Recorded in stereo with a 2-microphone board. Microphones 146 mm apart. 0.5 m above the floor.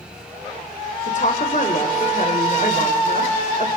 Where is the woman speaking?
55° left (ahead or behind), 2 m.